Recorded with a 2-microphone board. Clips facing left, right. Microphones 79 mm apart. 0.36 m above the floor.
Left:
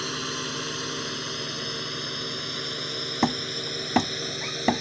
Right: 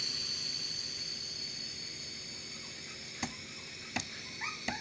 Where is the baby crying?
I don't hear a baby crying.